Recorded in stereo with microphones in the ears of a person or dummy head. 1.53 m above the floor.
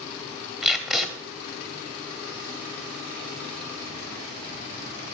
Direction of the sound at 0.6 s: 5° right (ahead or behind).